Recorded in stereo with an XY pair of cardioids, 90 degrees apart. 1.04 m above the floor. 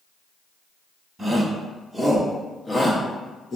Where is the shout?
20° right, 1.3 m; by 3.6 s 50° left, 1.0 m.